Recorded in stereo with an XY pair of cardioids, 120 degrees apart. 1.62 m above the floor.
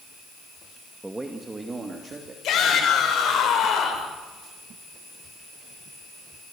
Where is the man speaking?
15° right, 1.9 m; by 2.3 s 30° right, 3 m.